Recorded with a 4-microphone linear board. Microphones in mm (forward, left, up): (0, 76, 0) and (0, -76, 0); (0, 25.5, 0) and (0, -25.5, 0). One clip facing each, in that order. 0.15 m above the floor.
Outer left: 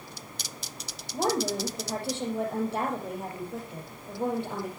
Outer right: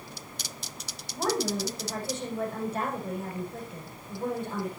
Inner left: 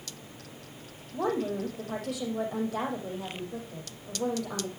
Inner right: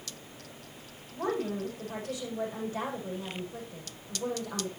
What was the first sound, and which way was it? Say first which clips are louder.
A woman speaking: outer left 1 dB, inner left 2 dB; 75° left (ahead or behind).